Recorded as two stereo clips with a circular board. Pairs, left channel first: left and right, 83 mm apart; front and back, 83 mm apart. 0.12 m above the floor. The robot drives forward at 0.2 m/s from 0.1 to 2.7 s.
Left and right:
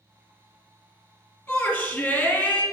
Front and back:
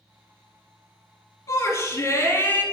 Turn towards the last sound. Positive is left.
turn(degrees=30)